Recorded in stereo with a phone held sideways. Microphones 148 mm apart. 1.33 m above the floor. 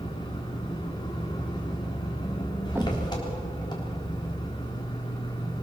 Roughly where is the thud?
Centre.